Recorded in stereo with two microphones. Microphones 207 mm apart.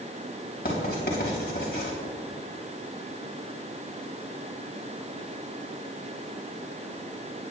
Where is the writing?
50° left (ahead or behind), 3.5 m.